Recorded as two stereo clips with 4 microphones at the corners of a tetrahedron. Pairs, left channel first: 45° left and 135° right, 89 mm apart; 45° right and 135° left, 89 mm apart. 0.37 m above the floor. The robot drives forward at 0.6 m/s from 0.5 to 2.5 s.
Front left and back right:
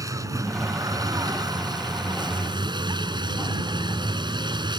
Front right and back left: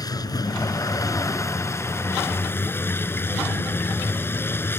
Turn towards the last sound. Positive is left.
turn(degrees=-105)